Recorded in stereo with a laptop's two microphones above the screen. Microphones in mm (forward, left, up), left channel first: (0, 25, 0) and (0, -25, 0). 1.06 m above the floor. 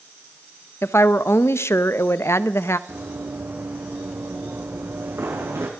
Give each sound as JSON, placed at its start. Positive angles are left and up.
{"t": 0.8, "sound": "a woman speaking", "side_deg": 60, "distance_m": 0.8}
{"t": 2.9, "sound": "running footsteps", "side_deg": -50, "distance_m": 4.5}